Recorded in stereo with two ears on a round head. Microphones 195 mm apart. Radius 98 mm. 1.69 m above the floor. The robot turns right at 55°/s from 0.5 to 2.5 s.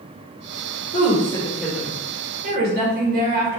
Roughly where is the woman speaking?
Behind left.